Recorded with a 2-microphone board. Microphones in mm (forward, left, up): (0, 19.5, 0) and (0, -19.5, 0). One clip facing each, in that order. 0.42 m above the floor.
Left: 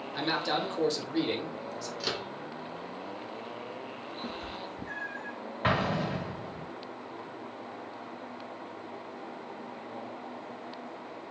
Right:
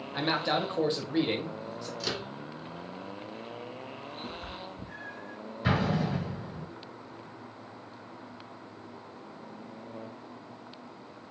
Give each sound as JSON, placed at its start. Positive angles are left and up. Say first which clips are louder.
{"t": 0.1, "sound": "a man speaking", "louder": "right 2 dB", "side_deg": -25, "distance_m": 1.5}
{"t": 2.0, "sound": "a microwave", "louder": "even", "side_deg": 5, "distance_m": 0.8}
{"t": 4.2, "sound": "a cat meowing", "louder": "left 3 dB", "side_deg": 80, "distance_m": 1.1}
{"t": 5.6, "sound": "an explosion", "louder": "even", "side_deg": 45, "distance_m": 1.7}